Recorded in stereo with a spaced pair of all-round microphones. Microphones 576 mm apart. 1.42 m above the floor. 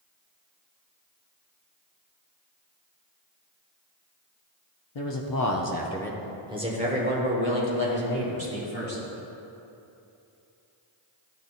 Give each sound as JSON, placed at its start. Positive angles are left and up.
{"t": 5.0, "sound": "a man speaking", "side_deg": 55, "distance_m": 0.7}